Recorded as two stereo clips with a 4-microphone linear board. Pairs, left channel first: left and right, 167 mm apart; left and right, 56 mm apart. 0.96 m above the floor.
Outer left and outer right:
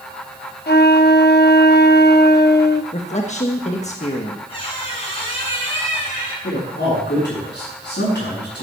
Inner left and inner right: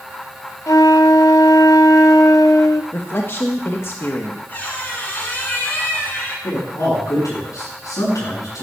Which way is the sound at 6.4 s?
75° left (ahead or behind).